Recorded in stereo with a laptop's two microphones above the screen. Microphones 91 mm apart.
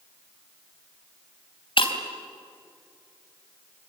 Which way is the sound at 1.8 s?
70° left (ahead or behind).